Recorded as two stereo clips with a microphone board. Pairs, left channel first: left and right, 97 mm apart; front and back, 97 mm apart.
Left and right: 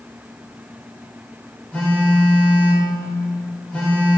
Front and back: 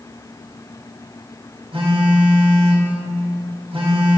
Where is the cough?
No cough in this recording.